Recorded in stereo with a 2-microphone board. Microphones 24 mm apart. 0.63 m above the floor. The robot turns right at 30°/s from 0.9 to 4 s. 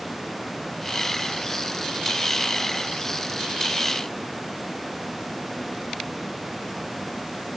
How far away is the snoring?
No snoring in this recording.